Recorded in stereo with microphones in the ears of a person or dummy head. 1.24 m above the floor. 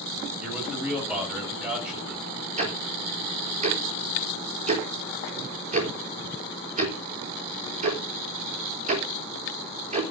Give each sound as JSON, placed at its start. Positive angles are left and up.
{"t": 0.4, "sound": "a man speaking", "side_deg": -5, "distance_m": 8.0}
{"t": 2.6, "sound": "ticking", "side_deg": -40, "distance_m": 3.5}